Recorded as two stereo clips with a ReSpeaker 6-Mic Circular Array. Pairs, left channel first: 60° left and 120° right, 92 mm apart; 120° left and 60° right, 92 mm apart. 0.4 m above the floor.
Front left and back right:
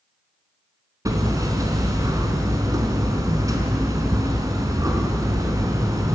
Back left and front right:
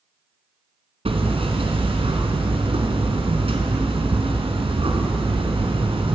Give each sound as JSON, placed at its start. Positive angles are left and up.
{"t": 1.1, "sound": "hammering", "azimuth_deg": -65, "distance_m": 3.0}